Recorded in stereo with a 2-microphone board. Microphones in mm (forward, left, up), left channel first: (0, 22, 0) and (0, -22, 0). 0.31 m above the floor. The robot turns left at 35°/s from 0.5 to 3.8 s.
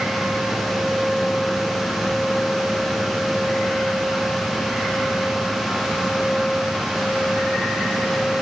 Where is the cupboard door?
No cupboard door in this recording.